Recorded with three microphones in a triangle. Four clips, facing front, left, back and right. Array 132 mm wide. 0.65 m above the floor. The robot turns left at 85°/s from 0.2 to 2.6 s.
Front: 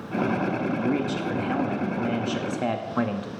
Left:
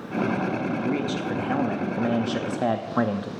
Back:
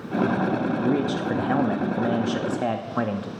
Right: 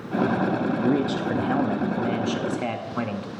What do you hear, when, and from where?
0.8 s a man speaking: 105° right, 0.5 m; by 3.3 s 100° left, 0.5 m